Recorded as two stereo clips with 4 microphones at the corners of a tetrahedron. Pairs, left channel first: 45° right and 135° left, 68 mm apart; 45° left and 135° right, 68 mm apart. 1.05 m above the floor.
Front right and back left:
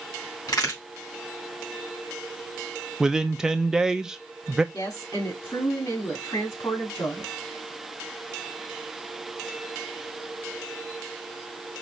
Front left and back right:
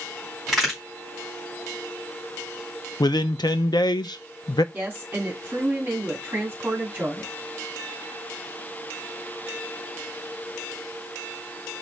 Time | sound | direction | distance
0.5 | a crack | 45° right | 3 m
3.0 | a man speaking | 55° left | 0.5 m
4.7 | a woman speaking | 70° right | 2 m